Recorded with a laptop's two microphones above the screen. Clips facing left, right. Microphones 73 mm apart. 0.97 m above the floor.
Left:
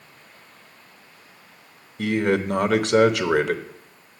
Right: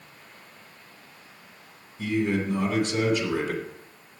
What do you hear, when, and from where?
2.0 s a man speaking: 75° left (ahead or behind), 0.7 m